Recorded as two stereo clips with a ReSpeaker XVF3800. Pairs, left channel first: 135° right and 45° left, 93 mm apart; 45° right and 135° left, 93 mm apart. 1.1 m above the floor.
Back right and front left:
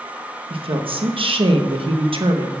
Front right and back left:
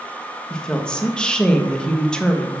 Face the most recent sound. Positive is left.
turn(degrees=35)